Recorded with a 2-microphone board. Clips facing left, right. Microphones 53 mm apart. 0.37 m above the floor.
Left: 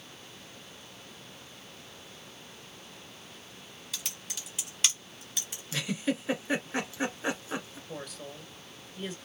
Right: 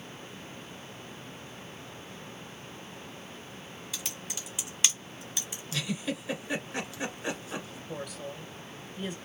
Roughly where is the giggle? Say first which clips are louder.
Left 2 dB; left.